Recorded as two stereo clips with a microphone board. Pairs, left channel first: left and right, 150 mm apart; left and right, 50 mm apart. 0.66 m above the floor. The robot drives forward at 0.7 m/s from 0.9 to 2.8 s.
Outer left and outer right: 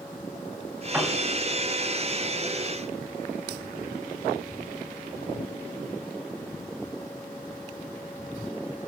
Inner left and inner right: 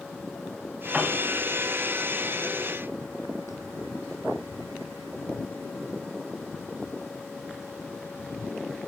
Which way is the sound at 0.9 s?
10° right (ahead or behind).